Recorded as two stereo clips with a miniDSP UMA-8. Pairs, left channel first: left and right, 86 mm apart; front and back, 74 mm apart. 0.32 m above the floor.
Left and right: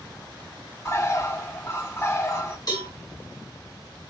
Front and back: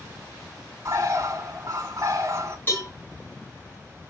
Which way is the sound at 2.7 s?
55° left.